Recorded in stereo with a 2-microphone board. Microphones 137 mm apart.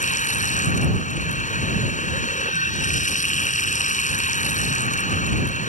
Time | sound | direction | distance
0.0 | running water | 65° left (ahead or behind) | ?